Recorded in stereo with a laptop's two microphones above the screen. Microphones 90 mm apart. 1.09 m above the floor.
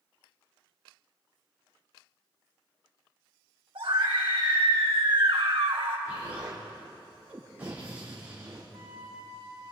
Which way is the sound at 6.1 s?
15° right (ahead or behind).